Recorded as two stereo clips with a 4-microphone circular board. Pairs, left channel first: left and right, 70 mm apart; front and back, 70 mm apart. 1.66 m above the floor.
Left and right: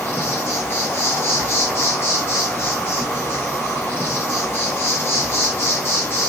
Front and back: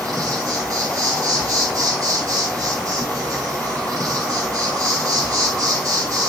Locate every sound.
0.0 s an insect: 145° left, 3.5 m